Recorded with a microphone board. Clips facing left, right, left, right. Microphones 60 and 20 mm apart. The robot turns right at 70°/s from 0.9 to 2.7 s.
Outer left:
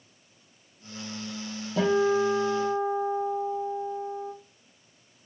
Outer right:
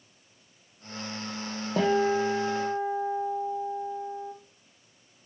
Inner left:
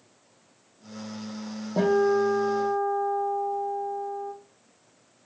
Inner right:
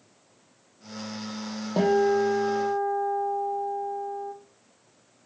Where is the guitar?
55° right, 6 m; by 4.3 s 15° left, 6 m.